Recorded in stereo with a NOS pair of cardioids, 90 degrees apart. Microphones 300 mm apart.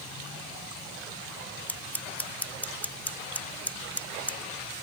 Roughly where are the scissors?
Ahead.